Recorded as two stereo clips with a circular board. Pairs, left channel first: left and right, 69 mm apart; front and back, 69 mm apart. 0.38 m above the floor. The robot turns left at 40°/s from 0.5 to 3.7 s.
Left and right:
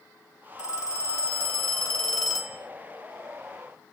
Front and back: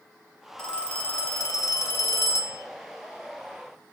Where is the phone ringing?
75° left, 1.4 m; by 2.6 s 5° right, 1.4 m.